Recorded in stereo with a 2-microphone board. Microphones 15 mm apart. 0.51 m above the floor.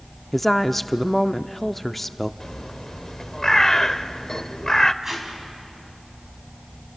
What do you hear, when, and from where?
0.3 s a woman speaking: 15° left (ahead or behind), 0.6 m
2.4 s a bird: 30° left (ahead or behind), 0.7 m
5.0 s tape being pulled: 20° right (ahead or behind), 4 m